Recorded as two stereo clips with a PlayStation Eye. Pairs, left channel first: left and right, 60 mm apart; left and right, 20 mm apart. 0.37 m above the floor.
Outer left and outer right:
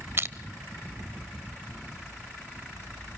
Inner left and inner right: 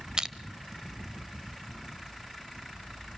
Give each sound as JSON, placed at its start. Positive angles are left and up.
{"t": 0.2, "sound": "crushing", "side_deg": -40, "distance_m": 0.6}